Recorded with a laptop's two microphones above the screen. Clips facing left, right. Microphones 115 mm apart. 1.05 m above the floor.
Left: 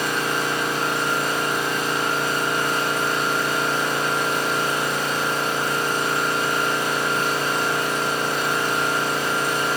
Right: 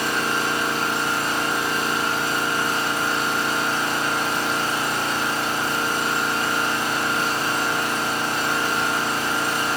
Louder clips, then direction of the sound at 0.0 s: Even; 35° right (ahead or behind).